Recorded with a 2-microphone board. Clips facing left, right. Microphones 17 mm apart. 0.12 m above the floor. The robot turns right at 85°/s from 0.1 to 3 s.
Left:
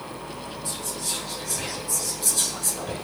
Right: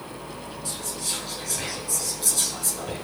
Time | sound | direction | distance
0.7 | whispering | 15° right (ahead or behind) | 1.4 m